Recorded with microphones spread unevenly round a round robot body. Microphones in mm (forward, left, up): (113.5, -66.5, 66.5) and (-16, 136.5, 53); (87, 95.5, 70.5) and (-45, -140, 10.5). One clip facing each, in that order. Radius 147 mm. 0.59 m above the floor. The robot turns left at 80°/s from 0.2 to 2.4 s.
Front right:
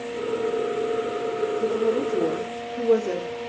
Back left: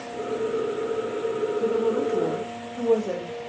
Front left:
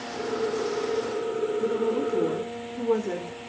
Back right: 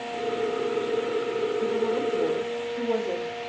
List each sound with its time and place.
1.6 s a woman speaking: 65° left, 1.2 m; by 3.4 s straight ahead, 1.2 m